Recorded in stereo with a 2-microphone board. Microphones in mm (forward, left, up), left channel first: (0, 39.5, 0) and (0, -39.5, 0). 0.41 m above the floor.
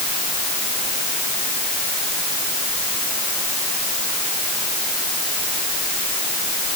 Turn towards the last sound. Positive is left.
No sound to turn to.